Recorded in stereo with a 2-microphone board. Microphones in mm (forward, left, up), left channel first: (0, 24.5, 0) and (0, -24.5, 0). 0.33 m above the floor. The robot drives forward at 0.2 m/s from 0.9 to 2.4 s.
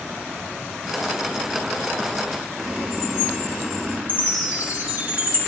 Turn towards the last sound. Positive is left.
turn(degrees=-40)  # may be behind; listen again after turning